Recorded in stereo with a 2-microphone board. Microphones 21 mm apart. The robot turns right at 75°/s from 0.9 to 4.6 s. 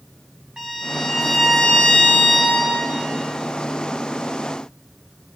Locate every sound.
0.6 s a violin: 20° right, 5 m; by 2.9 s 135° left, 5 m